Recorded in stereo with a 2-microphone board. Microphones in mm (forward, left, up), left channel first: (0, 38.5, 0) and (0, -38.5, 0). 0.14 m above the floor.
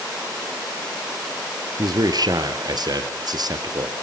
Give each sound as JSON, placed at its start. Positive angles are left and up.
{"t": 1.8, "sound": "a man speaking", "side_deg": -60, "distance_m": 3.0}